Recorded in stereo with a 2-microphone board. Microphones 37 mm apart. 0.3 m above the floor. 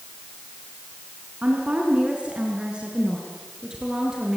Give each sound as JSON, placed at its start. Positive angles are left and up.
{"t": 1.4, "sound": "a woman speaking", "side_deg": -35, "distance_m": 3.0}